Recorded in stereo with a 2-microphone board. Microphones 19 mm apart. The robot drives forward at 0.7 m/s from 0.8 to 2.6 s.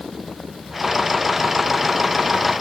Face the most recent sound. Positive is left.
No sound to turn to.